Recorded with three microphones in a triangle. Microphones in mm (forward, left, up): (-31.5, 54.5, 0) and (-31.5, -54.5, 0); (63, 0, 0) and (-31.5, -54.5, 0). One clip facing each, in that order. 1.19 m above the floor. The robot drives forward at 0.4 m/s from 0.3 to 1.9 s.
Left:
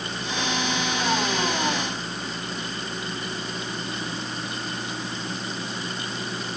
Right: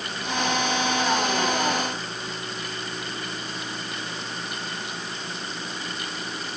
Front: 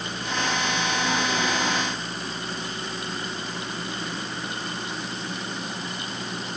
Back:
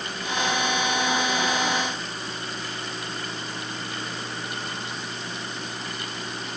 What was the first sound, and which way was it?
Only background noise.